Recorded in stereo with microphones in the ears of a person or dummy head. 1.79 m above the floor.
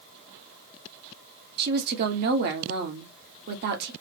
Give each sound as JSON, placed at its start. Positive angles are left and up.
{"t": 1.6, "sound": "a woman speaking", "side_deg": -55, "distance_m": 1.2}